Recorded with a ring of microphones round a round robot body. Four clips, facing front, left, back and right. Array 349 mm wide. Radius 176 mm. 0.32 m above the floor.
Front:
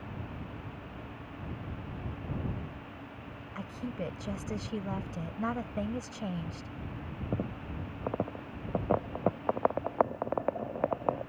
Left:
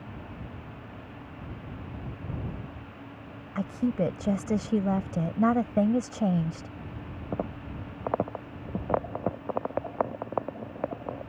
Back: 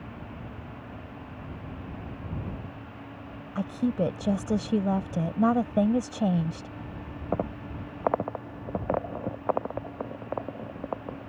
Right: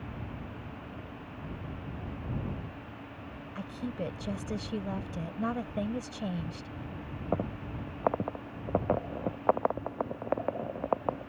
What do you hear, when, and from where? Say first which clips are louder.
3.5 s a woman speaking: left 10 dB, back 11 dB; 140° left